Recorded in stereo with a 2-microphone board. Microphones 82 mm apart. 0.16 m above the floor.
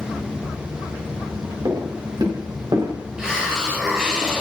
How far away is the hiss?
About 4 m.